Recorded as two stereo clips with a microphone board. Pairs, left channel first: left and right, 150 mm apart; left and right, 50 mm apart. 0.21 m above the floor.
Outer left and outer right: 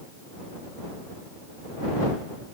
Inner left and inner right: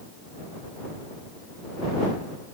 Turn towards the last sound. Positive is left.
No sound to turn to.